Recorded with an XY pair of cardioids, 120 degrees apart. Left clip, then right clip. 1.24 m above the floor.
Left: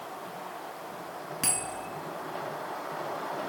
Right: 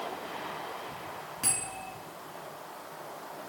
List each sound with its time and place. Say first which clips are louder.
1.4 s a bell: left 2 dB; 40° left, 2.5 m